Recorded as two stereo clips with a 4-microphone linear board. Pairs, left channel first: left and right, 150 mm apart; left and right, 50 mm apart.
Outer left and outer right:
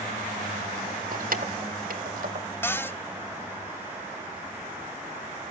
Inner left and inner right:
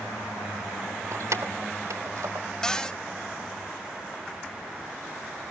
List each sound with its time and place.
1.1 s keys jangling: 70° right (ahead or behind), 1.2 m
2.6 s a cupboard door: 15° left (ahead or behind), 0.9 m